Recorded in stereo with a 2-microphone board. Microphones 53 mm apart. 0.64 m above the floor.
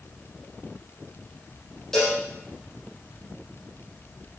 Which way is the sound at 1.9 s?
10° left (ahead or behind).